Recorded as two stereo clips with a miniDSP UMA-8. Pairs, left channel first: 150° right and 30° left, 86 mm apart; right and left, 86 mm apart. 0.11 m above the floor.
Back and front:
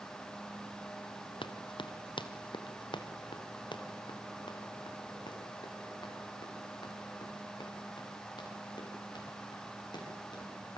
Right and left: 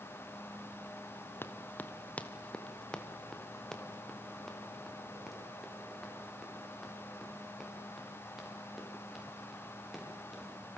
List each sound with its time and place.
1.4 s running footsteps: 155° right, 1.7 m; by 10.8 s 175° left, 10.5 m